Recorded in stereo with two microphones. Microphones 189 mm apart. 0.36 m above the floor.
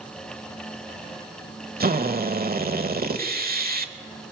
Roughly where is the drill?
Right.